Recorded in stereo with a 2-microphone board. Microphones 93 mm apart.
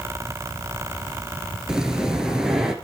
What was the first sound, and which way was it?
Breathing, 5° right (ahead or behind).